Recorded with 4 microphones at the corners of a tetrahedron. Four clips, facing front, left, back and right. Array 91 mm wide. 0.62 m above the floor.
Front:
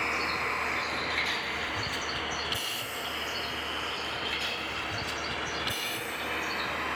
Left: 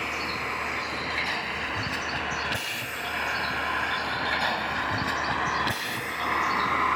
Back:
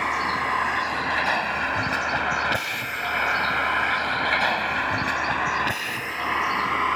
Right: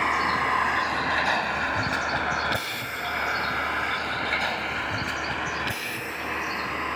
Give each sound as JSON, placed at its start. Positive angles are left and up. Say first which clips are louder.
{"t": 0.0, "sound": "a vehicle", "louder": "right 7 dB, back 7 dB", "azimuth_deg": -130}